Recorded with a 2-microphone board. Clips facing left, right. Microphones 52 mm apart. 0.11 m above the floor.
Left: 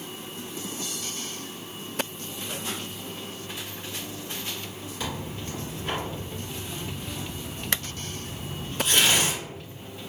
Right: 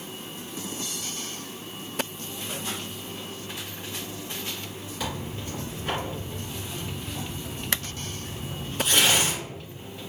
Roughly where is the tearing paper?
Centre.